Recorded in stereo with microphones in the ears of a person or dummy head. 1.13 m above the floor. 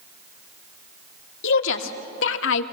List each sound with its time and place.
1.4 s a woman speaking: 70° left (ahead or behind), 2.0 m